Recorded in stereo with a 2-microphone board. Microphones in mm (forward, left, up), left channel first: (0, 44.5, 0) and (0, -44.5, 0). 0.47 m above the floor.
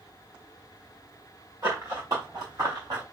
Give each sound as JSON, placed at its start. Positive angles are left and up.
{"t": 1.6, "sound": "running footsteps", "side_deg": -35, "distance_m": 3.0}